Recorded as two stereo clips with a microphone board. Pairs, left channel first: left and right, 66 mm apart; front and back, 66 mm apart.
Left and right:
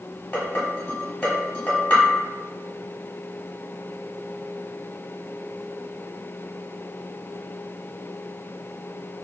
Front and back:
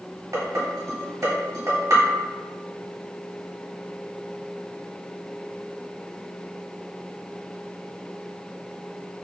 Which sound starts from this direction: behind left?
Dishes clattering, at 0.3 s.